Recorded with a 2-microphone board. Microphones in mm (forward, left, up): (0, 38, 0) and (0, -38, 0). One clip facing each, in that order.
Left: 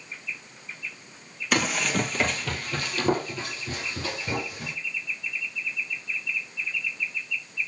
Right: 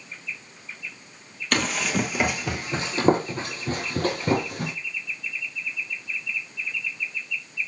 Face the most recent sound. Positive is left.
turn(degrees=-55)  # may be behind; listen again after turning